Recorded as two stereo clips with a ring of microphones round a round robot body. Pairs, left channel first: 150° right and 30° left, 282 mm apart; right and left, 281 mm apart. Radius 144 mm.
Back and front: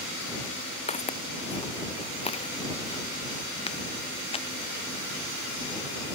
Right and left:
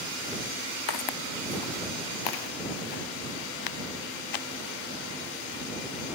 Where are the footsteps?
80° right.